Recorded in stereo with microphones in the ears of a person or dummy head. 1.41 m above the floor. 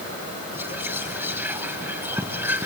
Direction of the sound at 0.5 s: 10° right (ahead or behind).